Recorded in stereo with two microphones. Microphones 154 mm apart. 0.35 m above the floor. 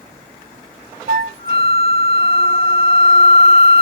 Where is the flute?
85° right, 0.7 m.